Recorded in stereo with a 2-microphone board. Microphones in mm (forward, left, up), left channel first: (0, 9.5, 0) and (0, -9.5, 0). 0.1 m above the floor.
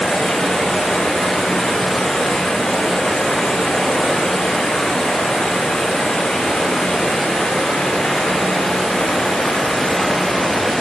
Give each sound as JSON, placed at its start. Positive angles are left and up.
{"t": 0.0, "sound": "running water", "side_deg": 75, "distance_m": 5.5}